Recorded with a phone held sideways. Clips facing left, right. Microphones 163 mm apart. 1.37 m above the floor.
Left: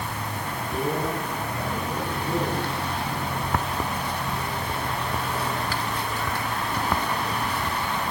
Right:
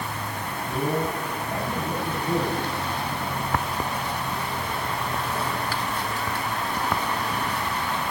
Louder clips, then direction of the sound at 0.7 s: Right 1 dB; 70° right (ahead or behind).